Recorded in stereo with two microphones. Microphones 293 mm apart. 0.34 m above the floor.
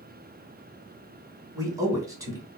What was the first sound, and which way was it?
A man speaking, 10° right (ahead or behind).